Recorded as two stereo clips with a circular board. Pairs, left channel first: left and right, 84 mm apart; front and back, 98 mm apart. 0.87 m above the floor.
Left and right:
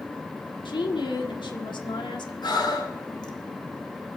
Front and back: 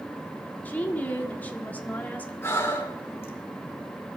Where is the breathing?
65° left, 2 m.